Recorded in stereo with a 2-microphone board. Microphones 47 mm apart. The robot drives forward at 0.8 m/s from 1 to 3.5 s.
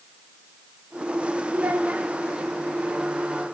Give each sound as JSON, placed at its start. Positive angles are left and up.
{"t": 1.5, "sound": "a child speaking", "side_deg": -50, "distance_m": 1.1}